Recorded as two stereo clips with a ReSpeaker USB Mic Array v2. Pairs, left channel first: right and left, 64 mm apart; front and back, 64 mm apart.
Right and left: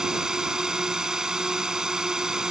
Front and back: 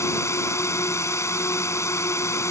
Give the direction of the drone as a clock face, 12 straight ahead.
12 o'clock.